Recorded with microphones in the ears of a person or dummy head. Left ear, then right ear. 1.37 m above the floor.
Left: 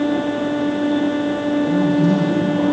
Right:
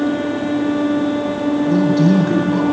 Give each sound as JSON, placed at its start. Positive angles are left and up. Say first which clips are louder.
{"t": 1.7, "sound": "a man speaking", "louder": "right 3 dB", "side_deg": -70, "distance_m": 8.5}